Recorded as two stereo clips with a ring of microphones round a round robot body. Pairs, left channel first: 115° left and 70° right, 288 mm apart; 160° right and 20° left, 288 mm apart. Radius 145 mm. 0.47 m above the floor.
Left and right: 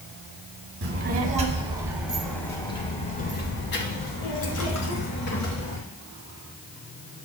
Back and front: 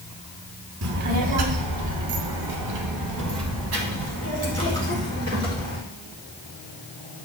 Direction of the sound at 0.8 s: 15° right.